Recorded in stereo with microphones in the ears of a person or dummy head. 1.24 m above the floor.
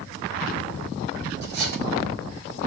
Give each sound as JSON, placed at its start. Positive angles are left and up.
{"t": 1.4, "sound": "cutlery clinking", "side_deg": -65, "distance_m": 2.0}